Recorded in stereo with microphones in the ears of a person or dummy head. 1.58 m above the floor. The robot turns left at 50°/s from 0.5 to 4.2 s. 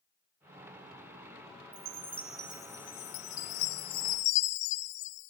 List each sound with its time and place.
1.7 s a chime: 165° right, 0.5 m; by 5.3 s 70° left, 0.5 m